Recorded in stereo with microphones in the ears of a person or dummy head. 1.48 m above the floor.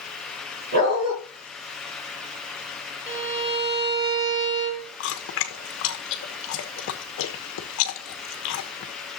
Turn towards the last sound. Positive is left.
turn(degrees=65)  # may be behind; listen again after turning